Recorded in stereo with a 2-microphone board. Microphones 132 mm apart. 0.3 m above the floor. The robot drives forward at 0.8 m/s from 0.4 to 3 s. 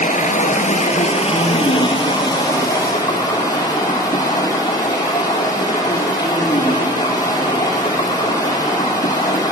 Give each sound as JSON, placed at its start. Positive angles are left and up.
{"t": 0.0, "sound": "running water", "side_deg": 80, "distance_m": 1.2}